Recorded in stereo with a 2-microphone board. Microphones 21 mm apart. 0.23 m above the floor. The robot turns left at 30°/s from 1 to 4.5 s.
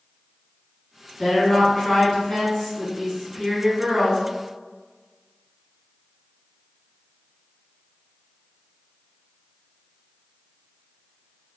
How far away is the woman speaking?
About 1.9 m.